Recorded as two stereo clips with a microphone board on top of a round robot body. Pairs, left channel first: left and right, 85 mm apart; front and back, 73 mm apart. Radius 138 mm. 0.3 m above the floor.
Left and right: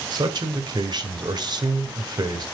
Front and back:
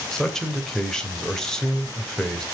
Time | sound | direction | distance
0.1 | a man speaking | 80° right | 2.5 m